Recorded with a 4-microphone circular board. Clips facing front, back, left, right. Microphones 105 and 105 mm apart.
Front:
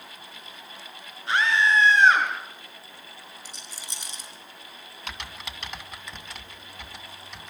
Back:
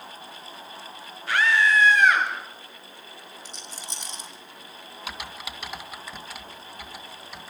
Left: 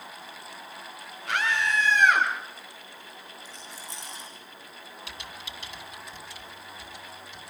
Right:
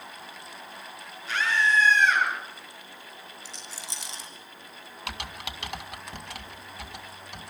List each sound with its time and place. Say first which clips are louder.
1.3 s a scream: back 1 dB, right 2 dB; 65° left, 6 m; by 2.3 s 60° left, 6.5 m
3.5 s a rattle: back 3 dB, even; 80° right, 6.5 m
5.1 s typing on a keyboard: back 2 dB, right 8 dB; 95° right, 1.9 m